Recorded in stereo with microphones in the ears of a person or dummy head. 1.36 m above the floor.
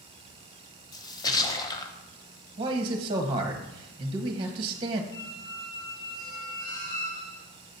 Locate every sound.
0.9 s a splash: 20° left (ahead or behind), 0.6 m
2.6 s a man speaking: 30° right (ahead or behind), 1.1 m
5.1 s a squeak: 35° left (ahead or behind), 1.3 m